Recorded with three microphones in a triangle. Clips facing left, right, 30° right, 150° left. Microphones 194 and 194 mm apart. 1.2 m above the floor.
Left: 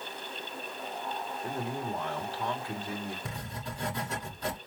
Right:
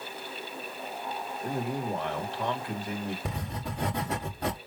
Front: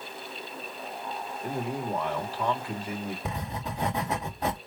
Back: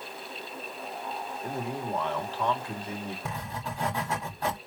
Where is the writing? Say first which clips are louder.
Right 4 dB, front 2 dB; 100° right, 2.5 m.